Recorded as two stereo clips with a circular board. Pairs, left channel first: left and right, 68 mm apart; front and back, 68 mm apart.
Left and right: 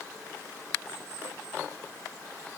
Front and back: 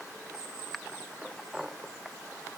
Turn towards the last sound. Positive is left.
No sound to turn to.